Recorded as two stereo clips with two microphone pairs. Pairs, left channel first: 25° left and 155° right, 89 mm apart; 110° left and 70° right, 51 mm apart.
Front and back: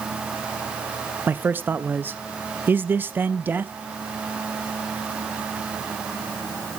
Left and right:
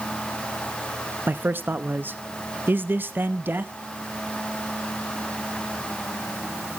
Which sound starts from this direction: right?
A man speaking, at 1.3 s.